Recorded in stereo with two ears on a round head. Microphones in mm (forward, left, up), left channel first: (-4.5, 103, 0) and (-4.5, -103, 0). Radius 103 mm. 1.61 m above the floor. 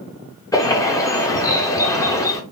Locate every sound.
0.5 s a bird: 15° left (ahead or behind), 0.5 m